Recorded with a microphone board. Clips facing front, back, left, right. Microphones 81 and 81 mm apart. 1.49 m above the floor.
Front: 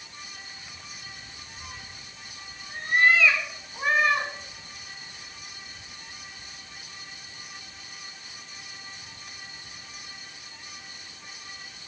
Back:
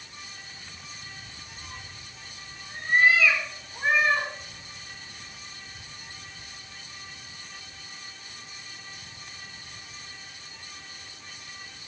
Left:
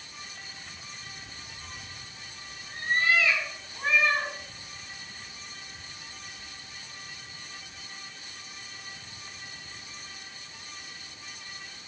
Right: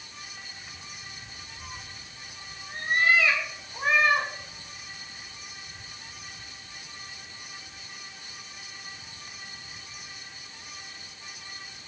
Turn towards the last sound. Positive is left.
turn(degrees=-105)